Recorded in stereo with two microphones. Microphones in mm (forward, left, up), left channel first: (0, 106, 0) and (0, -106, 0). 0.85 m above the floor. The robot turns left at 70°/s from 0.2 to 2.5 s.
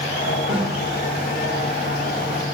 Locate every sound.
0.5 s a snare drum: 30° right (ahead or behind), 5 m; by 0.7 s 15° right (ahead or behind), 5 m